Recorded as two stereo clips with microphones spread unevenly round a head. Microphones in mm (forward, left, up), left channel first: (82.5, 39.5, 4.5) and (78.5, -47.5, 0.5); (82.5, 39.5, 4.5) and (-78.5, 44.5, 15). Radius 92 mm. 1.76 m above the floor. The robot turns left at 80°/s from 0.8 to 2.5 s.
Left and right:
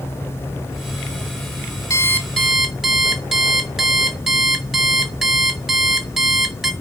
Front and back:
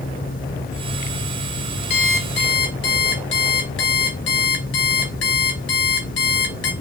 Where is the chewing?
No chewing in this recording.